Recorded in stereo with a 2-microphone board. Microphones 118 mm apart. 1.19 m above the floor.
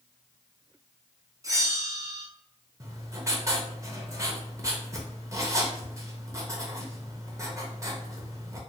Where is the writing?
25° right (ahead or behind), 0.7 m.